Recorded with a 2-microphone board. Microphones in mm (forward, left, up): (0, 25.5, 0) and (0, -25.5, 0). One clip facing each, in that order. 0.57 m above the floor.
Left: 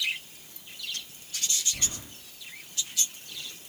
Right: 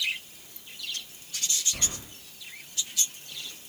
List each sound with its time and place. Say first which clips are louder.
1.7 s keys jangling: right 1 dB; 70° right (ahead or behind), 2 m